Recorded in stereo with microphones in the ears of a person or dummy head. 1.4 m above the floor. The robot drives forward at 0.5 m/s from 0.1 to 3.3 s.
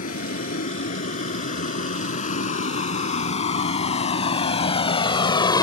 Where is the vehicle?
50° left (ahead or behind); by 5.6 s 25° left (ahead or behind).